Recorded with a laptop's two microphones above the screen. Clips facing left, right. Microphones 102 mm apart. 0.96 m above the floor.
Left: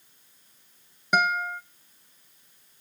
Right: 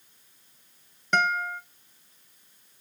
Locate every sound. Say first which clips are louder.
1.1 s a guitar: left 1 dB; 10° left (ahead or behind), 0.7 m